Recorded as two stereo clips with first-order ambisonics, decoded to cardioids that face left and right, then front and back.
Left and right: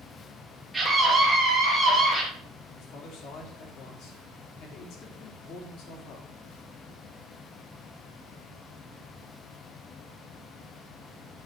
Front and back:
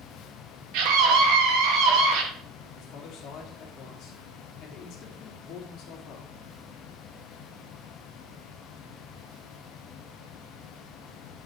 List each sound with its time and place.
0.7 s a scream: straight behind, 2.5 m; by 2.2 s 175° left, 3.5 m
2.8 s a man speaking: 50° left, 2.5 m